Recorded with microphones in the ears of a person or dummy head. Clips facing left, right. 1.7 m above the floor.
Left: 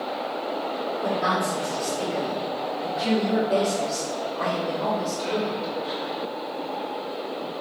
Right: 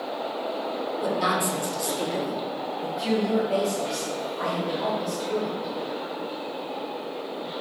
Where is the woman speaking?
55° right (ahead or behind), 0.9 m; by 5.7 s 30° left (ahead or behind), 2 m.